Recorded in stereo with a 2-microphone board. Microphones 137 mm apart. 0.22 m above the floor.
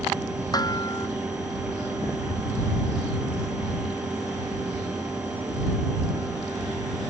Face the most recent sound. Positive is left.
turn(degrees=30)  # may be behind; listen again after turning